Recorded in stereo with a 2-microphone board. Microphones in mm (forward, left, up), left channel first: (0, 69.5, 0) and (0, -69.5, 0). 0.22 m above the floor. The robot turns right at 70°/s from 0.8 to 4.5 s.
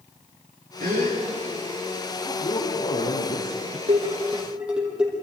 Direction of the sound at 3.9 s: 50° right (ahead or behind).